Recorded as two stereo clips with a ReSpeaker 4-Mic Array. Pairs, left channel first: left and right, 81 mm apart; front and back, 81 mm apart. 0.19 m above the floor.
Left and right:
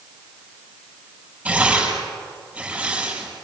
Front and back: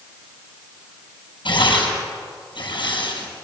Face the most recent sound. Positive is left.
turn(degrees=-15)